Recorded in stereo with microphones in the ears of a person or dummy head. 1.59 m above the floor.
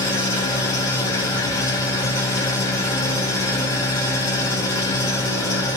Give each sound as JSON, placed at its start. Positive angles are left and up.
{"t": 0.0, "sound": "an engine running", "side_deg": 15, "distance_m": 4.0}